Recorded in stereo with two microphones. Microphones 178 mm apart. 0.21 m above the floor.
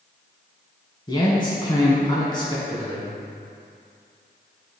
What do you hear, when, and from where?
1.1 s a man speaking: 25° left (ahead or behind), 1.5 m